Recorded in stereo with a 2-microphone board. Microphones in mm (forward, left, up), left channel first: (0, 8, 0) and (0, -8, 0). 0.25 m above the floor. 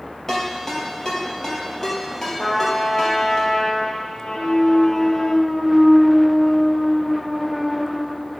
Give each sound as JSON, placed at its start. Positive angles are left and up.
{"t": 0.3, "sound": "a ringtone", "side_deg": 25, "distance_m": 3.0}
{"t": 2.4, "sound": "a trumpet", "side_deg": 60, "distance_m": 1.0}
{"t": 4.3, "sound": "a clunk", "side_deg": 5, "distance_m": 3.5}